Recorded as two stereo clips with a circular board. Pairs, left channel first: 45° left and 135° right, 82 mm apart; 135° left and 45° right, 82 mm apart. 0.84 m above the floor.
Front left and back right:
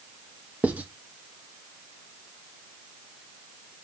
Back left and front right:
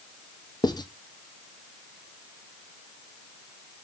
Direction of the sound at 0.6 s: 155° left.